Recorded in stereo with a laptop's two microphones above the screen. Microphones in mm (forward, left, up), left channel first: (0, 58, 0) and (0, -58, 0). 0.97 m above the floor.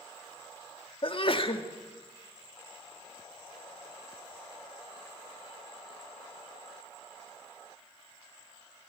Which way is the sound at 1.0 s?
50° left (ahead or behind).